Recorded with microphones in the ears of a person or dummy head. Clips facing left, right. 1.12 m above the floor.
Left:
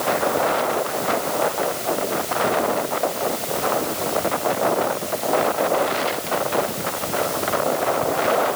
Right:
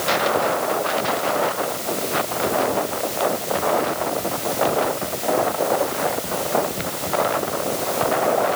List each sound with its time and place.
Only background noise.